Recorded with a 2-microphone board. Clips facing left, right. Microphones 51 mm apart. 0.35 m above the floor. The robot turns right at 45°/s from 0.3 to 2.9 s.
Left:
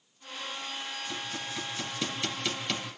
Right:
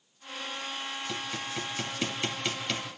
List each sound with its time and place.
1.1 s hammering: 75° right (ahead or behind), 3.5 m; by 2.9 s 5° left (ahead or behind), 3.5 m